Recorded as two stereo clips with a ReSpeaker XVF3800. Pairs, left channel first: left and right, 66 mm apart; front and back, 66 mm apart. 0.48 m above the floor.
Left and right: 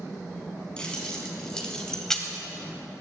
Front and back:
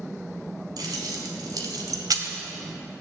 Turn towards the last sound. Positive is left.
turn(degrees=175)